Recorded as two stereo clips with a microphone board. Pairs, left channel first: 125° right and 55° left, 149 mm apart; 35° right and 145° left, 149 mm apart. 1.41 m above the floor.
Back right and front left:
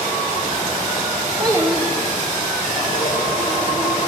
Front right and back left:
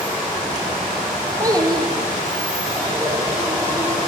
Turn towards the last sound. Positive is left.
turn(degrees=-135)